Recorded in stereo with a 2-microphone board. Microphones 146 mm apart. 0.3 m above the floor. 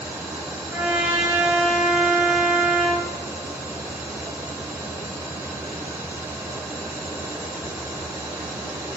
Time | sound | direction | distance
0.7 | a trumpet | 10° right (ahead or behind) | 1.6 m